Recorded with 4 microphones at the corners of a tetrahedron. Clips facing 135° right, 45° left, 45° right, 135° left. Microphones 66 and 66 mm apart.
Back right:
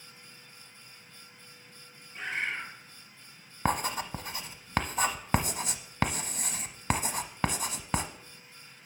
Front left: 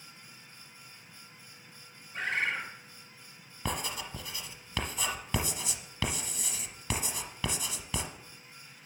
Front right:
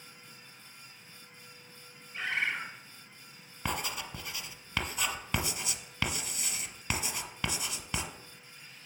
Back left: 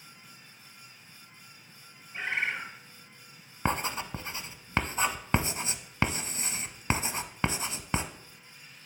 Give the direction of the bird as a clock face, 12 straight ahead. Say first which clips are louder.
Front left 2 dB, back left 1 dB; 10 o'clock.